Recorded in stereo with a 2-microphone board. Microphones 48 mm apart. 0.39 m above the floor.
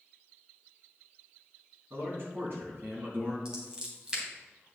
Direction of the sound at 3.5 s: 20° right (ahead or behind).